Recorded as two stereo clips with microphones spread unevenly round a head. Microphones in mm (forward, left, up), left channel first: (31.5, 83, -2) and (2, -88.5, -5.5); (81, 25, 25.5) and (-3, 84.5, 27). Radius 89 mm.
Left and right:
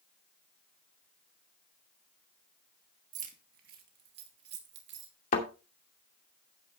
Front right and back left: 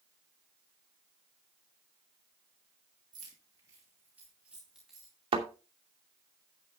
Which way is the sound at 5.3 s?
125° left.